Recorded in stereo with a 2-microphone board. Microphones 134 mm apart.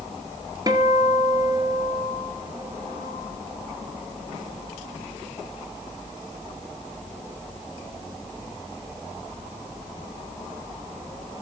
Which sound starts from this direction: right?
A guitar, at 0.7 s.